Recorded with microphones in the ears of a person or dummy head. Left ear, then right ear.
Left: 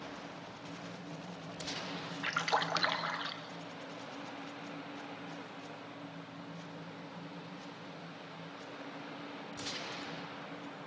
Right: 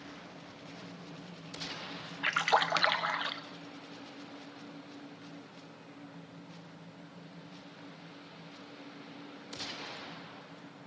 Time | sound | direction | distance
2.2 | a splash | 20° right (ahead or behind) | 1.3 m